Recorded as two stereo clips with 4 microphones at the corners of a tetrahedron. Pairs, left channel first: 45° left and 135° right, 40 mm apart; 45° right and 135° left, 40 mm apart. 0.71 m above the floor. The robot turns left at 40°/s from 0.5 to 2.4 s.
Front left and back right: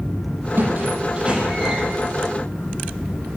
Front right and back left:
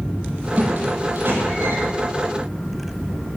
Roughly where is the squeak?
Behind.